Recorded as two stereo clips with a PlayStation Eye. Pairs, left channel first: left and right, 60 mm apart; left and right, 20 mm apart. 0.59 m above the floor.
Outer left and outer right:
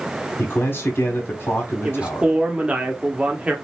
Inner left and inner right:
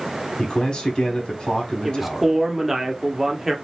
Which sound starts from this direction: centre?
A man speaking, at 1.8 s.